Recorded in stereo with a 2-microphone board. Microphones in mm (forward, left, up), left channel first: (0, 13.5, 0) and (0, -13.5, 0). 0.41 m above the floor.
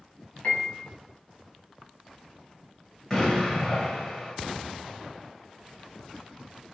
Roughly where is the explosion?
Centre.